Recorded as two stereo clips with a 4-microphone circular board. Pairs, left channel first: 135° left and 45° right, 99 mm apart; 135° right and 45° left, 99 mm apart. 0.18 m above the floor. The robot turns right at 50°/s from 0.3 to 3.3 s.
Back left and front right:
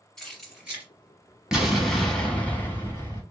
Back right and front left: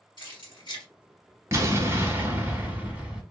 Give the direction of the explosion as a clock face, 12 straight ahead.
11 o'clock.